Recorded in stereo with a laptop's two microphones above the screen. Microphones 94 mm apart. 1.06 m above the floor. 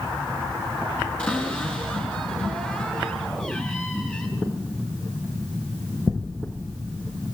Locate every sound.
1.2 s a cupboard door: 10° left (ahead or behind), 4.5 m